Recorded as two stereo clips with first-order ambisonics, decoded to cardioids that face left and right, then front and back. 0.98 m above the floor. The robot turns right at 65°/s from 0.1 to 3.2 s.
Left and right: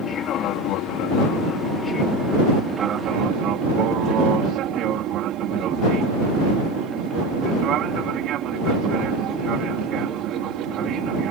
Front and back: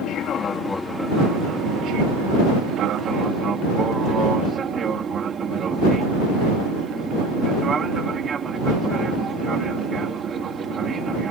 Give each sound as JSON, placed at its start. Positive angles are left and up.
{"t": 0.0, "sound": "an aircraft", "azimuth_deg": 35}